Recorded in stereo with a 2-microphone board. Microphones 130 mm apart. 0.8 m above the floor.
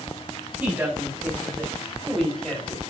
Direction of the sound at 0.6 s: 10° right (ahead or behind).